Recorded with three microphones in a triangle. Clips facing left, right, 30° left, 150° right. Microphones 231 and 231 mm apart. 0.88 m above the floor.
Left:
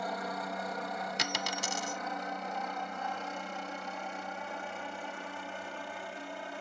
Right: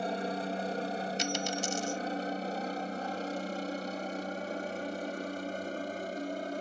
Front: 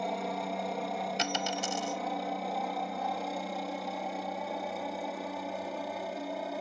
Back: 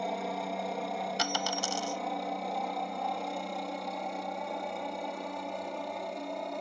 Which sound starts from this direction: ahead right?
A helicopter, at 0.0 s.